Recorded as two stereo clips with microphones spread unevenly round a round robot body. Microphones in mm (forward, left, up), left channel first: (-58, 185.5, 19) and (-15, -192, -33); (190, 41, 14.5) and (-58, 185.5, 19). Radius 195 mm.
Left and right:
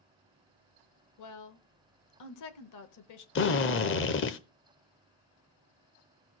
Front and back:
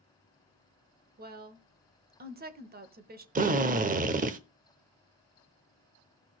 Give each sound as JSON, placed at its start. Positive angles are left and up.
{"t": 1.2, "sound": "a woman speaking", "azimuth_deg": 110, "distance_m": 1.2}
{"t": 3.4, "sound": "a drill", "azimuth_deg": 135, "distance_m": 0.7}